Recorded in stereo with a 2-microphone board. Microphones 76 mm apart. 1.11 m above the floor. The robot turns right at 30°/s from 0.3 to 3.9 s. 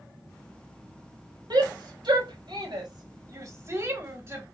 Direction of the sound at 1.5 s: 70° right (ahead or behind).